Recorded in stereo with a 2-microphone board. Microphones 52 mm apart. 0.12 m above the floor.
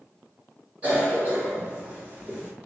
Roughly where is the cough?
Right.